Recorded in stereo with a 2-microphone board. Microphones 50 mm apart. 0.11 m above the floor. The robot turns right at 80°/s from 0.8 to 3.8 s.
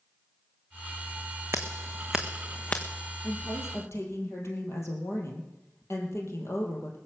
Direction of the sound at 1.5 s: 60° right (ahead or behind).